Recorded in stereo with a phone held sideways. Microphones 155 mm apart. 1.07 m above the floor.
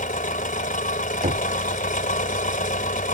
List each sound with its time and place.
0.0 s an engine running: 65° left (ahead or behind)
1.2 s knocking: 65° right (ahead or behind)